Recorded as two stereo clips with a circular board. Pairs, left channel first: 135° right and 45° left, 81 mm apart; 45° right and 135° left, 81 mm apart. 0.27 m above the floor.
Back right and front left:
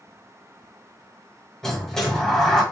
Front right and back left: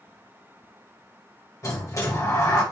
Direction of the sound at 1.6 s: 55° right.